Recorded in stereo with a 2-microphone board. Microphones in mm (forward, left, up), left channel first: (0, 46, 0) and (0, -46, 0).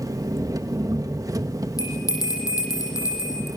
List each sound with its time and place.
0.0 s an engine running: 40° right (ahead or behind), 1.4 m
1.8 s a bell: 40° left (ahead or behind), 7.5 m